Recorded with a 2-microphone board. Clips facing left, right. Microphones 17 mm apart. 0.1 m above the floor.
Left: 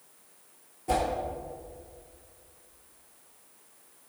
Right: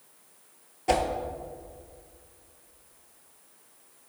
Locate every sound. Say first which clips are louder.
0.9 s a whoosh: right 3 dB; 55° right (ahead or behind), 0.9 m